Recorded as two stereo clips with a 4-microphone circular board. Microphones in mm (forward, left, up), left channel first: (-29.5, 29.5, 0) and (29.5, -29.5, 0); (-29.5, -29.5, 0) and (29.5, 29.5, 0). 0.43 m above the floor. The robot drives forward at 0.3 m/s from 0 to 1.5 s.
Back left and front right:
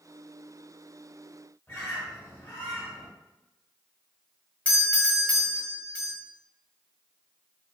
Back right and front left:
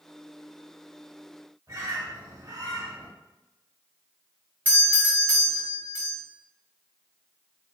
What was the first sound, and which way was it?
A bird, 85° left.